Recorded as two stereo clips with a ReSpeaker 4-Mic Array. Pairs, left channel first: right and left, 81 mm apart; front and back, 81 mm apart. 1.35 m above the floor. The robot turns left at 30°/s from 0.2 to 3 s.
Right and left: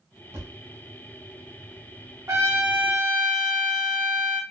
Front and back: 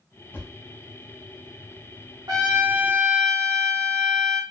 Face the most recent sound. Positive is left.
turn(degrees=125)